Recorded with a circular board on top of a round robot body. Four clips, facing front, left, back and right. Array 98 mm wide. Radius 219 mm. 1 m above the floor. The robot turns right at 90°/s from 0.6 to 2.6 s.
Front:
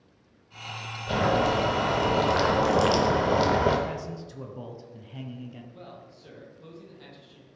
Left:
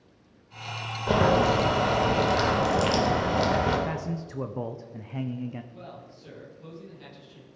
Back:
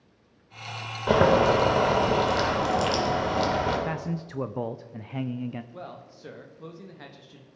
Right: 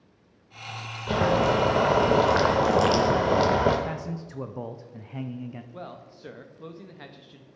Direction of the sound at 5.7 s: 125° right.